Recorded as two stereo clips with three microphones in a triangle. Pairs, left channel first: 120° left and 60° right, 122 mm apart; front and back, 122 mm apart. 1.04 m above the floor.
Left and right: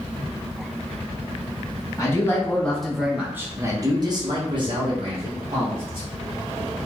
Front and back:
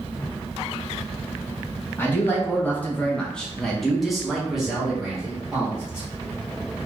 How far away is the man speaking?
About 0.9 m.